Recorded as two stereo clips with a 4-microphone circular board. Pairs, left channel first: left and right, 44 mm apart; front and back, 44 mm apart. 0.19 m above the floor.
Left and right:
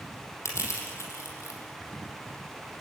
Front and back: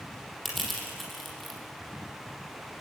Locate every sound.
0.5 s crushing: 90° left, 5.5 m